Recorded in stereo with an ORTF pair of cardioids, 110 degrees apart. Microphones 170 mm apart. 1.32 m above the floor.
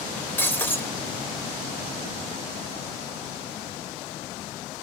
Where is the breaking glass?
10° left, 3 m.